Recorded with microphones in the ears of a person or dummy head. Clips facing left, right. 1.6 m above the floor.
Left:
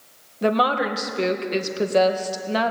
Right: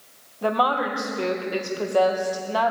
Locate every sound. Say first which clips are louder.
0.4 s a woman speaking: left 2 dB; 25° left (ahead or behind), 1.3 m